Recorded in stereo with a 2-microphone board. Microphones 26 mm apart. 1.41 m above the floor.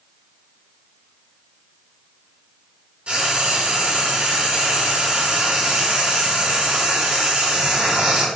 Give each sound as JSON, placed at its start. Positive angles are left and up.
{"t": 3.1, "sound": "frying", "side_deg": -55, "distance_m": 1.6}